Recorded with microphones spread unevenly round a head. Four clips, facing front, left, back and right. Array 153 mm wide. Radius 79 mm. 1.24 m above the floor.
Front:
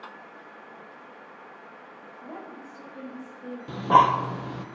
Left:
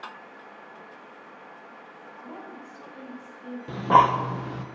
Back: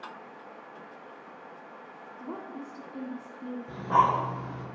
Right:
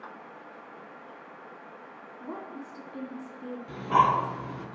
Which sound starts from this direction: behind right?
A woman speaking, at 2.2 s.